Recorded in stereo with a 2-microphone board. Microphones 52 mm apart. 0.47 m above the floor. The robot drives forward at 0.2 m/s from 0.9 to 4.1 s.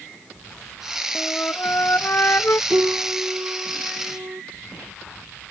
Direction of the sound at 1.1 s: 50° left (ahead or behind).